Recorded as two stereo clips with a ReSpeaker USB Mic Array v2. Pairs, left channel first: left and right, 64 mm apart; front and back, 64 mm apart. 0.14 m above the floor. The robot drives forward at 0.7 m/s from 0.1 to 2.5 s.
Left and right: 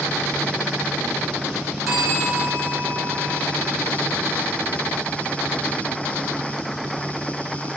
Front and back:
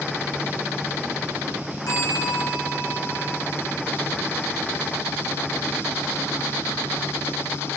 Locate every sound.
1.9 s a bell: straight ahead, 9.5 m